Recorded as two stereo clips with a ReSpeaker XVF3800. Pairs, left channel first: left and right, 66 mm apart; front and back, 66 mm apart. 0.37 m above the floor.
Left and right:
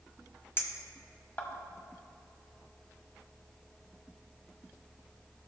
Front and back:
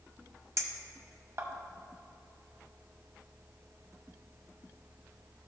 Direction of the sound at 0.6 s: 140° left.